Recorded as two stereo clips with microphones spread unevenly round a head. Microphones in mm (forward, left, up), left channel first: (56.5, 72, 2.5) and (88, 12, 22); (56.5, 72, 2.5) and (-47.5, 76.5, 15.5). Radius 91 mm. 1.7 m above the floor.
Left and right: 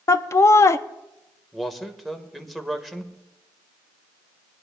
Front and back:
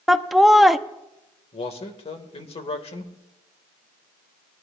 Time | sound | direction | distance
0.1 | laughter | 105° left | 0.5 m
1.5 | a man speaking | 25° left | 1.7 m